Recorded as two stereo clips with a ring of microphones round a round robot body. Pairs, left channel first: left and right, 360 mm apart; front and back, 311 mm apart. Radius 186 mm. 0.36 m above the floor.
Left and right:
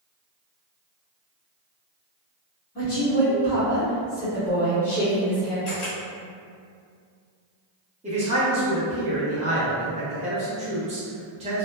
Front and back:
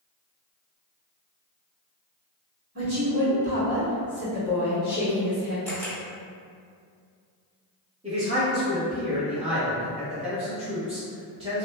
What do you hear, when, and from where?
2.8 s a woman speaking: 160° left, 1.5 m; by 5.5 s 5° left, 1.4 m
5.7 s a camera shutter: 80° left, 1.4 m
8.0 s a man speaking: 135° right, 0.8 m